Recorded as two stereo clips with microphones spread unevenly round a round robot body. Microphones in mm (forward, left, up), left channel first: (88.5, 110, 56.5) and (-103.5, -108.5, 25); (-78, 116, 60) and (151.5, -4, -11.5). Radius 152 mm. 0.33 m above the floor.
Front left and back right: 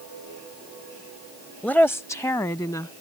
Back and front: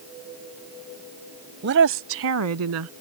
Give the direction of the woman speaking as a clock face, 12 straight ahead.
1 o'clock.